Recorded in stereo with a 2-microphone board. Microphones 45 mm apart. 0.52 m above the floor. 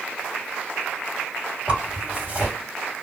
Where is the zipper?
30° right (ahead or behind), 2 m.